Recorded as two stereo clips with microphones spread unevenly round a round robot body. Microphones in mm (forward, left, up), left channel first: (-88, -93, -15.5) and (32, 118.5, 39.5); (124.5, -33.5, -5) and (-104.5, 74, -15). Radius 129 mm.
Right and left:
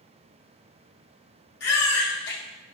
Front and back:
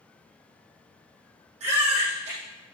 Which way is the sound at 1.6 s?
140° right.